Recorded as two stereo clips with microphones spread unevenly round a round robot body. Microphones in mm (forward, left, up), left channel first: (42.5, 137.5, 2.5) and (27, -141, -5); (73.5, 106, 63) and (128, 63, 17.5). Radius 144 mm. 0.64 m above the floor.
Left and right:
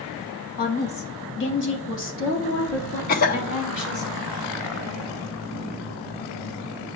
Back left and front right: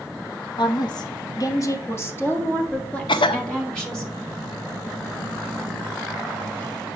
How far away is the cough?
About 0.6 m.